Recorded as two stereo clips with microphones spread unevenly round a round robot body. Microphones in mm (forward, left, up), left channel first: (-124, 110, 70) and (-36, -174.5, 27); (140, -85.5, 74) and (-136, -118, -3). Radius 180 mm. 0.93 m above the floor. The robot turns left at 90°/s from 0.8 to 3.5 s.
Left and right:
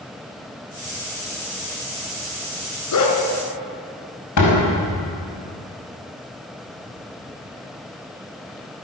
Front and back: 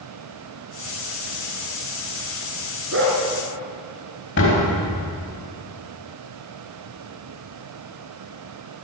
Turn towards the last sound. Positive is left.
turn(degrees=65)